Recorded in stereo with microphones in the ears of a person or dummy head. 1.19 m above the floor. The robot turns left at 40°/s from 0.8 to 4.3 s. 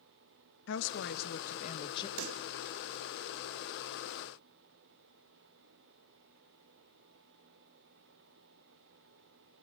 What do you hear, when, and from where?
0.7 s a woman speaking: 75° left, 1.6 m; by 2.1 s 25° left, 1.6 m
2.2 s a pop: 80° right, 0.5 m; by 2.5 s 65° right (ahead or behind), 0.5 m